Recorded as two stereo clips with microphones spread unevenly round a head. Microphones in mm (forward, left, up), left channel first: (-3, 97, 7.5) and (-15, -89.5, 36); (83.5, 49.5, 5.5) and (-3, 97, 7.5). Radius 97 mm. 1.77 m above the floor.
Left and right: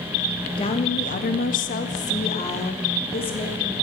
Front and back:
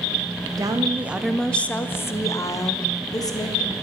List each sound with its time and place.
0.6 s a woman speaking: 145° left, 0.8 m; by 3.7 s 20° left, 2 m